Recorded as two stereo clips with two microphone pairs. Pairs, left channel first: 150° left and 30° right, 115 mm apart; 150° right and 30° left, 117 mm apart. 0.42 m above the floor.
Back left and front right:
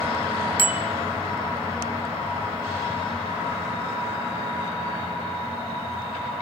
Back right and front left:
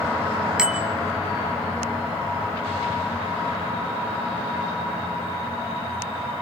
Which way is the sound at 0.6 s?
115° left.